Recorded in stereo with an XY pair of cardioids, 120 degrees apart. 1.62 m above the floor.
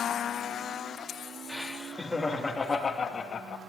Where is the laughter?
5° right, 3 m; by 3.6 s 45° left, 2 m.